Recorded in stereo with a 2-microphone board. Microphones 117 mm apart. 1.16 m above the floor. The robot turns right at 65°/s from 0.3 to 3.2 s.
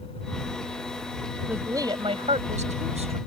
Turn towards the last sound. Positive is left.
turn(degrees=-55)